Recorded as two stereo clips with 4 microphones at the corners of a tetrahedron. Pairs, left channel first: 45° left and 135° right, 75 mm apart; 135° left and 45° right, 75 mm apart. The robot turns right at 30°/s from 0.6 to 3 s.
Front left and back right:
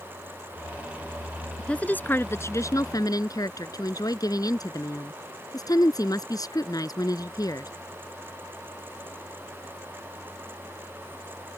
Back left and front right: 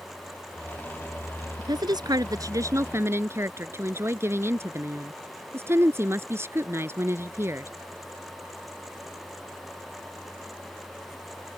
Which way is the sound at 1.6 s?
30° right.